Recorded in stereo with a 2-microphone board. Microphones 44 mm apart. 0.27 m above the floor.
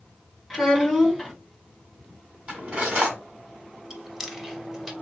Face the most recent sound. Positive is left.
turn(degrees=-10)  # may be behind; listen again after turning